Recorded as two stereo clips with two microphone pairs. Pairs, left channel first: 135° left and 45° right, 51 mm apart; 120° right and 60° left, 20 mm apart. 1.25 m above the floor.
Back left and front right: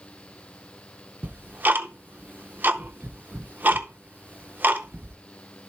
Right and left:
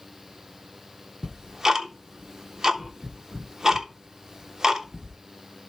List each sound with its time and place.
1.2 s ticking: straight ahead, 0.6 m